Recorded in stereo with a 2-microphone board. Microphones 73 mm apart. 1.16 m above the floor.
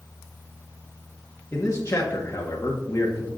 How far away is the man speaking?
About 1.5 m.